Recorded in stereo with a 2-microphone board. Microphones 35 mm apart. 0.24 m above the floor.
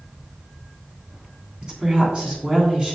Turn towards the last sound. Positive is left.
turn(degrees=-25)  # may be behind; listen again after turning